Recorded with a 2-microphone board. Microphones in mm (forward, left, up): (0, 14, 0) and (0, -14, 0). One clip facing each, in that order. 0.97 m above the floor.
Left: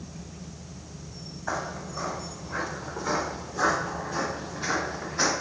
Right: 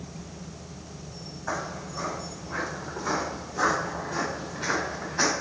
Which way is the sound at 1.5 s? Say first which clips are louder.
Left 1 dB; centre (ahead or behind).